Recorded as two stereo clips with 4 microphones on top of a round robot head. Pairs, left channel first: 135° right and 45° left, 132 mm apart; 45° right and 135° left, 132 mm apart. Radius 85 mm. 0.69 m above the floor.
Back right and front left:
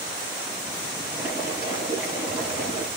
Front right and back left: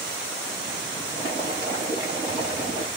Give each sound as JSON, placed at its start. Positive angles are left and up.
{"t": 1.1, "sound": "boiling", "azimuth_deg": 15, "distance_m": 4.5}